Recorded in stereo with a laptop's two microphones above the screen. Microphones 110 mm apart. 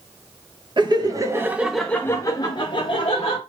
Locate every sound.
0.8 s laughter: 45° right (ahead or behind), 0.7 m; by 3.4 s 60° left (ahead or behind), 0.9 m